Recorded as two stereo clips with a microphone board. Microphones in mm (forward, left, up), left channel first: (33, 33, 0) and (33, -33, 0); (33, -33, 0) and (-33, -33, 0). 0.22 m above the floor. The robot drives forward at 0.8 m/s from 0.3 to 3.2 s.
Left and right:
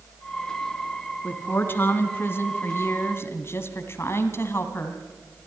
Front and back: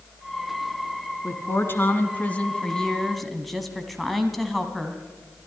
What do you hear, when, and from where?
1.2 s a woman speaking: 35° left, 2.5 m; by 5.0 s 90° left, 1.8 m